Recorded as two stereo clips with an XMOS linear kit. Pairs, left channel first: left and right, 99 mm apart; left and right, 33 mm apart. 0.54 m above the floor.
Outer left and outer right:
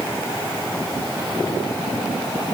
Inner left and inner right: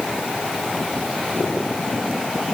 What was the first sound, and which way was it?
Only background noise.